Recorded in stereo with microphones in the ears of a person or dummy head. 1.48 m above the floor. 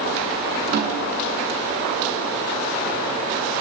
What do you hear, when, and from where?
0.7 s a snare drum: 70° right (ahead or behind), 7 m